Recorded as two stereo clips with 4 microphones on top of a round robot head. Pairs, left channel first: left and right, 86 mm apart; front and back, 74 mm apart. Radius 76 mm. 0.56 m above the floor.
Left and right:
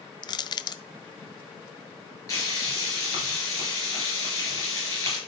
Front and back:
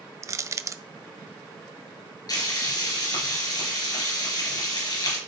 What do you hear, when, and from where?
0.2 s crushing: 130° left, 0.6 m
2.3 s frying: 30° left, 4.5 m